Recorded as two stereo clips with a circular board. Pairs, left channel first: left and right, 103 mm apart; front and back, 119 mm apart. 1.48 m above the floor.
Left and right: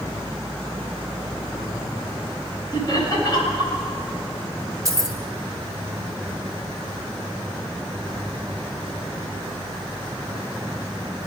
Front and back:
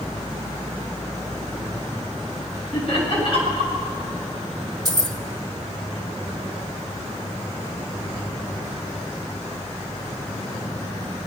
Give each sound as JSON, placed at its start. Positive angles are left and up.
{"t": 2.7, "sound": "laughter", "azimuth_deg": 40, "distance_m": 7.5}
{"t": 4.8, "sound": "keys jangling", "azimuth_deg": -135, "distance_m": 1.0}